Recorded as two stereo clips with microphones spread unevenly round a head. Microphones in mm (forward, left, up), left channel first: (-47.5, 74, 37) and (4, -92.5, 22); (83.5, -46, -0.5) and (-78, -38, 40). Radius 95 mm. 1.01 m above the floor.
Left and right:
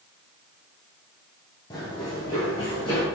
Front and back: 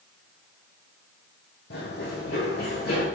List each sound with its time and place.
1.7 s running footsteps: 40° left, 2.5 m; by 3.0 s 45° left, 3 m